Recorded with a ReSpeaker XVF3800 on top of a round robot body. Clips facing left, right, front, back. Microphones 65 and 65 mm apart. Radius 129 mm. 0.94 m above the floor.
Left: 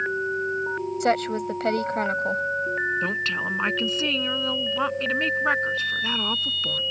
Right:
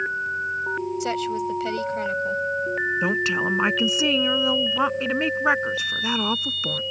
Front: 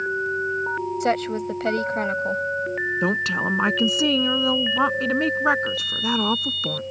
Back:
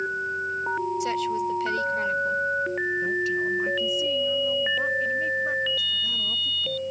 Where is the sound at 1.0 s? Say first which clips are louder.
Left 2 dB, front 3 dB; 50° left.